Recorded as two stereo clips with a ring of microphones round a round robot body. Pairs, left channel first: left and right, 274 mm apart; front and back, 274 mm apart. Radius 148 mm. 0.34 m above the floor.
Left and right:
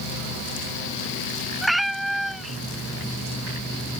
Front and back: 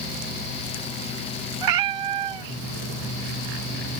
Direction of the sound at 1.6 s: Straight behind.